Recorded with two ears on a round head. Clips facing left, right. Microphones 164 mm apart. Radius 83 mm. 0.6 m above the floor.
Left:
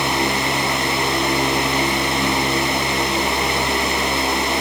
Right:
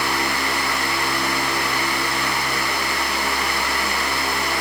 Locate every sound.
Only background noise.